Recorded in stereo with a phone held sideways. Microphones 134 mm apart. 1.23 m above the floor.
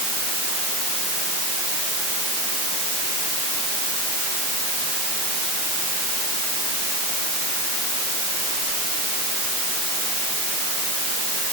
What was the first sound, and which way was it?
Only background noise.